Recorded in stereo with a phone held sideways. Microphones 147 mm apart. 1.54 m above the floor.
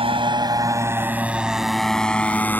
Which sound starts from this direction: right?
A motorcycle, at 0.0 s.